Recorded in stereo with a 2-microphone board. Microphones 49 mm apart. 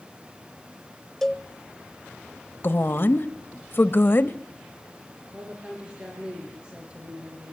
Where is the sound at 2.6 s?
50° left (ahead or behind), 1.2 m.